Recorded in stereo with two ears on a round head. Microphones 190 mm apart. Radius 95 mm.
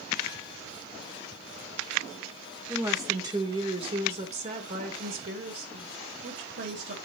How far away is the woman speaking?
About 2 m.